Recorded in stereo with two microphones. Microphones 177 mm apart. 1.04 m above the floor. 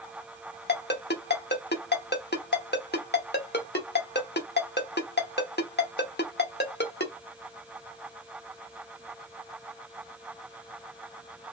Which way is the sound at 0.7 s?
70° left (ahead or behind).